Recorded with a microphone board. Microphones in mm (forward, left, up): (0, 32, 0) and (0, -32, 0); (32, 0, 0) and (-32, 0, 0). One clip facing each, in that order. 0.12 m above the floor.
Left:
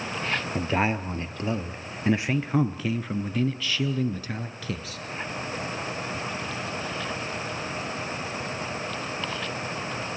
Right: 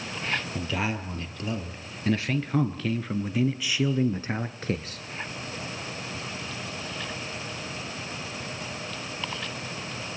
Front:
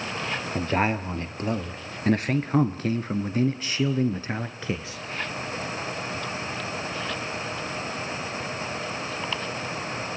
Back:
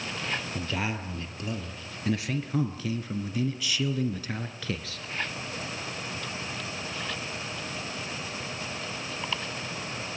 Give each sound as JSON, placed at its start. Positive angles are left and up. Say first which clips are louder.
{"t": 0.6, "sound": "a man speaking", "louder": "left 5 dB, front 7 dB", "azimuth_deg": 45, "distance_m": 2.5}